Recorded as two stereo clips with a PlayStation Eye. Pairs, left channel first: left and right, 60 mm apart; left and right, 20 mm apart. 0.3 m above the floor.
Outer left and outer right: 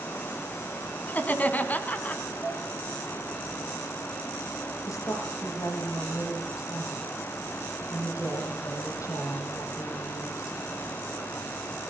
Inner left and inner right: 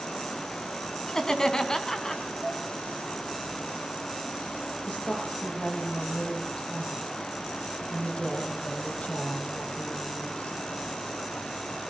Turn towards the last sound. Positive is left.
turn(degrees=85)